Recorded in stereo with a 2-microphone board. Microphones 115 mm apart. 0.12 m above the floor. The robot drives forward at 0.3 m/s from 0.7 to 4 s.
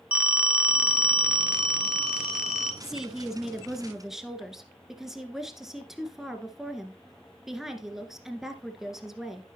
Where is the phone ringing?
10° right (ahead or behind), 0.8 m; by 2.7 s 5° right (ahead or behind), 1.3 m.